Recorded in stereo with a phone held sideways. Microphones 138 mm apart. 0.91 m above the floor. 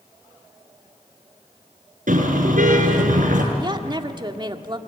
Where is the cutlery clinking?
I don't hear cutlery clinking.